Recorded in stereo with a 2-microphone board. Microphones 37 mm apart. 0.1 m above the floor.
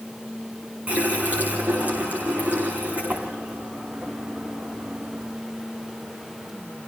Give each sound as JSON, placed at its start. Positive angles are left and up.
{"t": 0.9, "sound": "a running tap", "side_deg": -40, "distance_m": 5.0}